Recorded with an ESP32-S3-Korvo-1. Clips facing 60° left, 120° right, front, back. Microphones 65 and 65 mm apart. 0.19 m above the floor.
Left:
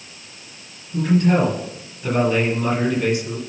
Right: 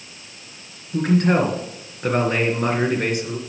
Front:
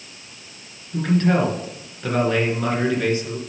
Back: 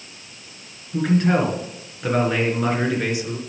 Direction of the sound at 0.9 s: 105° right.